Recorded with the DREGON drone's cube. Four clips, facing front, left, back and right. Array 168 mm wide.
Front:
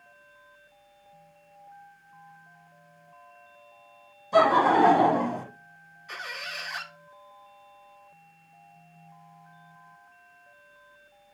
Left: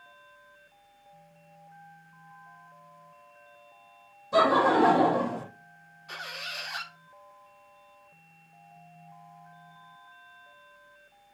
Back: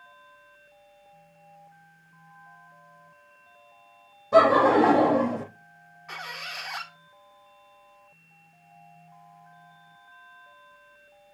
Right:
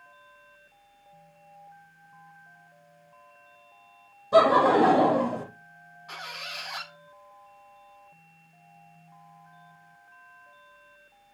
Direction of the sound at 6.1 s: 155° right.